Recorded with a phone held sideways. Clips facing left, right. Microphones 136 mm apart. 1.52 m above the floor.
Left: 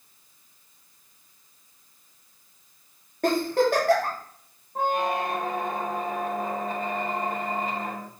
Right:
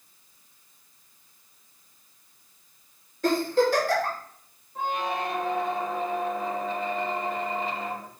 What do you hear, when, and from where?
3.2 s a giggle: 60° left (ahead or behind), 3 m
4.8 s a squeak: 45° left (ahead or behind), 1.4 m